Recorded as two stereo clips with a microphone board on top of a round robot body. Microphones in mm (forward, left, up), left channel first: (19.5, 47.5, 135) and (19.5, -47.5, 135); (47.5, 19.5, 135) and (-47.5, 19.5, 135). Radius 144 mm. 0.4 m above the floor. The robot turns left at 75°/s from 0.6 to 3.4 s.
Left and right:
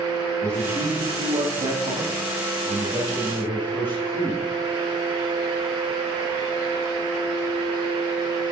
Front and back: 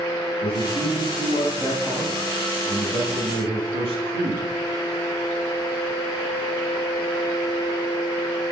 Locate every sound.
0.4 s a man speaking: 5° left, 4.5 m; by 4.5 s 155° left, 4.5 m